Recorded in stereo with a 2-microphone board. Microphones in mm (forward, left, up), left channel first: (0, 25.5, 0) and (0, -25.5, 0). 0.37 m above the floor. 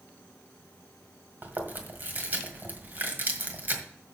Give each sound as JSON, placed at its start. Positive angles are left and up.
{"t": 1.4, "sound": "chewing", "side_deg": -40, "distance_m": 1.8}